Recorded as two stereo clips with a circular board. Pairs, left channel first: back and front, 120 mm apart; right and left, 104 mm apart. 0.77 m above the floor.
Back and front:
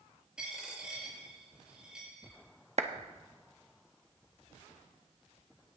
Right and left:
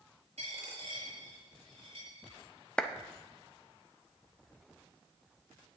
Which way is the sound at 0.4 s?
85° left.